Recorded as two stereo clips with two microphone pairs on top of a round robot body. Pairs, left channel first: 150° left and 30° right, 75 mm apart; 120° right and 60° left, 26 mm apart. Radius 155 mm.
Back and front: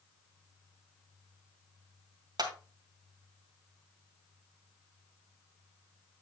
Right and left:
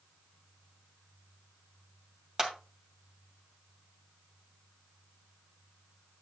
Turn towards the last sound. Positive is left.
turn(degrees=-5)